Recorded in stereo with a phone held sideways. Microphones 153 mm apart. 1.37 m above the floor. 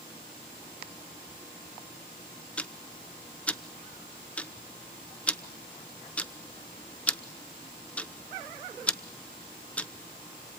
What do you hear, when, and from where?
2.6 s ticking: 10° left (ahead or behind), 0.8 m